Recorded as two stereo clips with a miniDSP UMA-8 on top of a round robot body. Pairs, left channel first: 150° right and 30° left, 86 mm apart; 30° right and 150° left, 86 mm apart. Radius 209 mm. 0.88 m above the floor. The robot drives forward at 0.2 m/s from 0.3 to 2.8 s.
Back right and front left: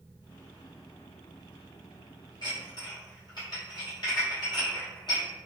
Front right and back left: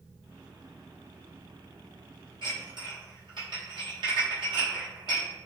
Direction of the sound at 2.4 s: 175° left.